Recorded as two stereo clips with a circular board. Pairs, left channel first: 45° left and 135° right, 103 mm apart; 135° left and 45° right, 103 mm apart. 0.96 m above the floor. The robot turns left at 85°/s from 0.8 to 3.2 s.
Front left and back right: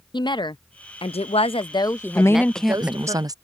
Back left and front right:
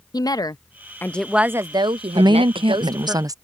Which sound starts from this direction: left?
A woman speaking, at 0.1 s.